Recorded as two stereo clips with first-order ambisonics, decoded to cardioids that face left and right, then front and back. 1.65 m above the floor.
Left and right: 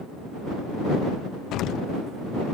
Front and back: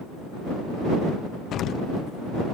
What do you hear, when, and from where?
1.5 s an explosion: 50° left